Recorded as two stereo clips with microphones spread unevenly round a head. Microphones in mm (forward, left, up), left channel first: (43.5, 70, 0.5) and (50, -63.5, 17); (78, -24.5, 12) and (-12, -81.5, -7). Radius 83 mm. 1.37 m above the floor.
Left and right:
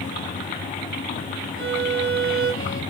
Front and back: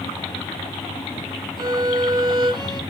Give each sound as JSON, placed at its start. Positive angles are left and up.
{"t": 1.6, "sound": "a violin", "azimuth_deg": -95, "distance_m": 1.2}